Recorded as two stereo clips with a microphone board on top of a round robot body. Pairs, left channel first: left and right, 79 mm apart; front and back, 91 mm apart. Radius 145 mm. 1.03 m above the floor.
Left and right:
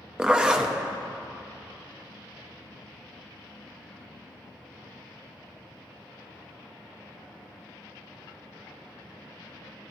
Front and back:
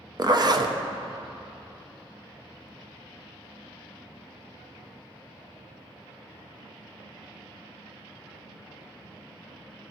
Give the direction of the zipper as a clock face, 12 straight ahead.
6 o'clock.